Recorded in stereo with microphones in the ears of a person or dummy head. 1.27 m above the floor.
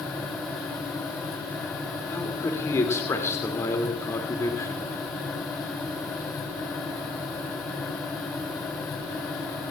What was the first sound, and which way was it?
A man speaking, 15° left (ahead or behind).